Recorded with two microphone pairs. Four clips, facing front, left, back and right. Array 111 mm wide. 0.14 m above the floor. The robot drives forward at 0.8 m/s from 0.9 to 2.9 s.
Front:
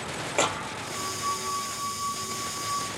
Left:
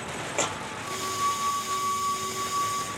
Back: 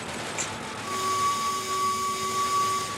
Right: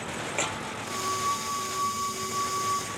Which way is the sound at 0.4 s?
15° left.